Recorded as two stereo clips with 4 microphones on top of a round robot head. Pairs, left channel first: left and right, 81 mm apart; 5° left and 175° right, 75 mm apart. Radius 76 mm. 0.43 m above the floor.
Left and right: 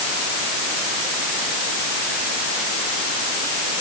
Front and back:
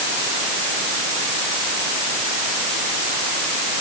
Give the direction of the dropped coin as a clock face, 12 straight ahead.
I don't hear a dropped coin.